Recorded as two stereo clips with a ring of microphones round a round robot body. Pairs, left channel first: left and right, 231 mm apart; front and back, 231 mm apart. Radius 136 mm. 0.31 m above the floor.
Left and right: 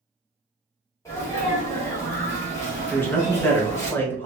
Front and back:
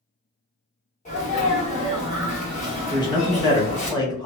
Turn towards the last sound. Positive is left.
turn(degrees=25)